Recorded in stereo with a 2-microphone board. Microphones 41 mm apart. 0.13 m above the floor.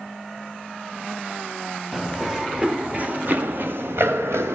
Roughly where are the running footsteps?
Centre.